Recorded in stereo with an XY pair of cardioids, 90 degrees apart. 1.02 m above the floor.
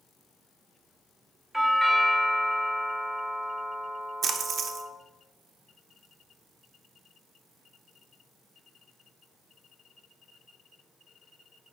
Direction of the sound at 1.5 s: 10° right.